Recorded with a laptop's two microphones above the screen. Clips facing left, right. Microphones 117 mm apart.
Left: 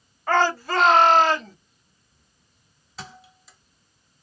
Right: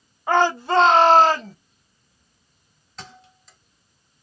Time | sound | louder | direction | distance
0.3 | a shout | right 2 dB | 15° right (ahead or behind) | 0.8 m
3.0 | a thud | left 1 dB | 5° left (ahead or behind) | 1.0 m